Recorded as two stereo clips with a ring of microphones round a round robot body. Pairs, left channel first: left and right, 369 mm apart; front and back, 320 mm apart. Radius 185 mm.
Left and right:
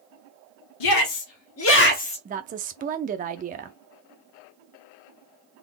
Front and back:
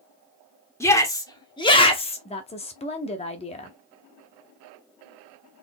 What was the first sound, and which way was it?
A shout, 80° left.